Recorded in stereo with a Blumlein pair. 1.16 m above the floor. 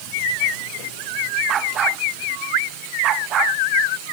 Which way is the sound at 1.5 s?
25° right.